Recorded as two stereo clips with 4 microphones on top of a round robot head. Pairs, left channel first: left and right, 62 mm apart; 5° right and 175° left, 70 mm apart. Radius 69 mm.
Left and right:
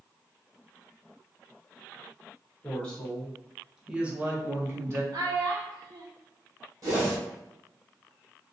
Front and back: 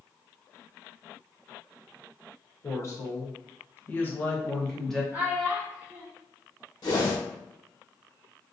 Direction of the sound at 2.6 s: 25° left.